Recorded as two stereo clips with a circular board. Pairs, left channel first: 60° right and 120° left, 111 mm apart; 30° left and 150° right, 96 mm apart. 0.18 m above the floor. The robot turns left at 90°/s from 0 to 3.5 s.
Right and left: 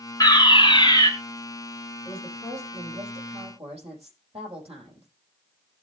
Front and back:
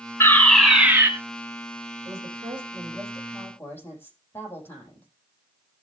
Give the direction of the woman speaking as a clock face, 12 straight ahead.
4 o'clock.